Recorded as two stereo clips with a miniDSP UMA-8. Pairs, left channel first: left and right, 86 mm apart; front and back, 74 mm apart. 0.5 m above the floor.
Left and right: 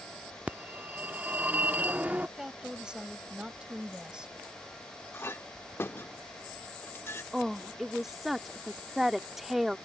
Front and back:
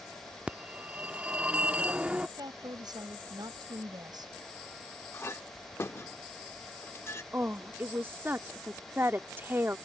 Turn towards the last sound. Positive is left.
turn(degrees=-175)